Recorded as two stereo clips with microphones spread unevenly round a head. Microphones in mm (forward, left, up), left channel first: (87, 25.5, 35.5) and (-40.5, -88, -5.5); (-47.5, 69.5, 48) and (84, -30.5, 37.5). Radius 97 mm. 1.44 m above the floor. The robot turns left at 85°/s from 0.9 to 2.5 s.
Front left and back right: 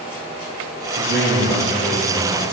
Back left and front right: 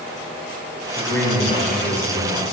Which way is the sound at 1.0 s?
120° right.